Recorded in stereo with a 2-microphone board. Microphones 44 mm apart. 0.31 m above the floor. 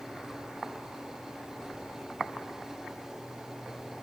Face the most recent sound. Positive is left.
No sound to turn to.